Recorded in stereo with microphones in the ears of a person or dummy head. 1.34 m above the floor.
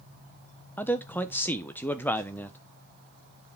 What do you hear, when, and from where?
0.8 s a man speaking: 10° left (ahead or behind), 0.9 m